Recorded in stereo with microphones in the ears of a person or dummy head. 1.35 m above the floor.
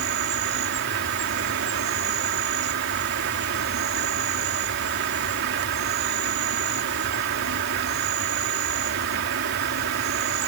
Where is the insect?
65° right (ahead or behind).